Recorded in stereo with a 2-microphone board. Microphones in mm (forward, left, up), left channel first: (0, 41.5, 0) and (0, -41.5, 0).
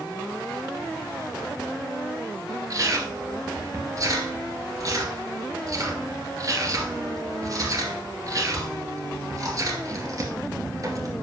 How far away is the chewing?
About 2 m.